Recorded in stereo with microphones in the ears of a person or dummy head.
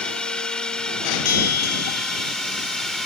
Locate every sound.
0.0 s a drone: 5° left (ahead or behind)
1.2 s a bell: 50° left (ahead or behind)